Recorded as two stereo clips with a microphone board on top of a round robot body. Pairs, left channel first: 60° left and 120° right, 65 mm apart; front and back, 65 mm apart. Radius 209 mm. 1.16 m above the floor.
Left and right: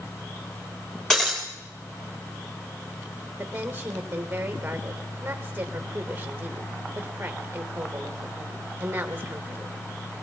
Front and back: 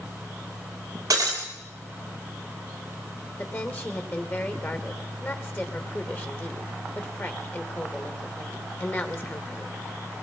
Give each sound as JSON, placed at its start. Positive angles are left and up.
{"t": 1.1, "sound": "breaking glass", "azimuth_deg": 145, "distance_m": 3.0}
{"t": 3.4, "sound": "a woman speaking", "azimuth_deg": -55, "distance_m": 2.5}